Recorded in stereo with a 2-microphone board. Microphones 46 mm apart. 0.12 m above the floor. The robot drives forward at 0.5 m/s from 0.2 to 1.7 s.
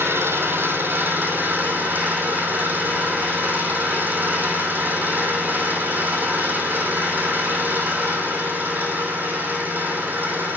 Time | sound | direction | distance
0.0 | an engine running | 60° right (ahead or behind) | 1.4 m